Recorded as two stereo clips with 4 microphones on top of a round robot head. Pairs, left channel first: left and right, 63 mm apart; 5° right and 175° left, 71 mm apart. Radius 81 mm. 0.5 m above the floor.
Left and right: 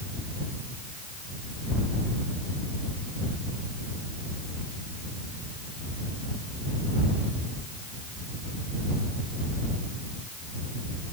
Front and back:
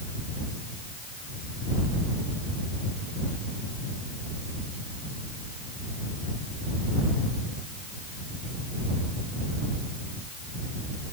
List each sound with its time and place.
Only background noise.